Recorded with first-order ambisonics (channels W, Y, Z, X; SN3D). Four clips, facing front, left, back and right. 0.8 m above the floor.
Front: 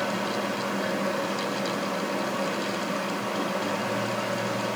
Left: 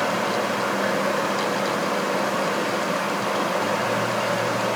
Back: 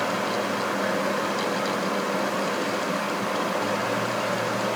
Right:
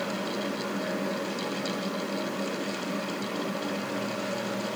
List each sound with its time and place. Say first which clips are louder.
0.0 s running water: left 8 dB, back 2 dB; 105° left, 0.8 m